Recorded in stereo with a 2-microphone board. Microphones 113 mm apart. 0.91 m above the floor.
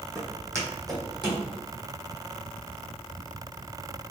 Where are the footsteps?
15° right (ahead or behind), 1.9 m; by 1.4 s 40° right (ahead or behind), 2 m.